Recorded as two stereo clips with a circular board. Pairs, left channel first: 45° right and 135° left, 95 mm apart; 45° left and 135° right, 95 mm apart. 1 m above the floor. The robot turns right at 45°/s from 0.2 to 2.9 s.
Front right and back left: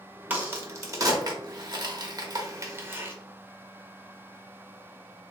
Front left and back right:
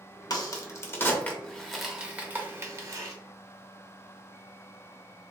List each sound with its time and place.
0.3 s a crack: 70° left, 0.9 m; by 3.2 s 175° right, 0.9 m